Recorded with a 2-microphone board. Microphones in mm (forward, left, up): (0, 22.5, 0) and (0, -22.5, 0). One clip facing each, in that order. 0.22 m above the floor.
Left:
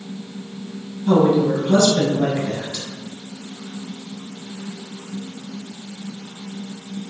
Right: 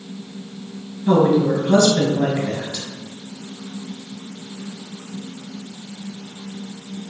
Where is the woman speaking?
20° right (ahead or behind), 1.6 m.